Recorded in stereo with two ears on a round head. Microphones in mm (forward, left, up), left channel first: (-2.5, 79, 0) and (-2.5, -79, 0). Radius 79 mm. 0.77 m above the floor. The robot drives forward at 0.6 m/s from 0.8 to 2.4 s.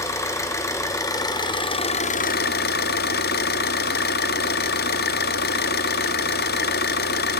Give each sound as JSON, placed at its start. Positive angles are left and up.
{"t": 0.0, "sound": "an engine running", "side_deg": 15, "distance_m": 1.3}